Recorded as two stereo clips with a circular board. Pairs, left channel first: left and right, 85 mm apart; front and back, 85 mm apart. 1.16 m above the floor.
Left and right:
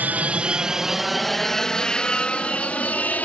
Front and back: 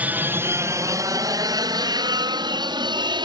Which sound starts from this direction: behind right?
An aircraft, at 0.0 s.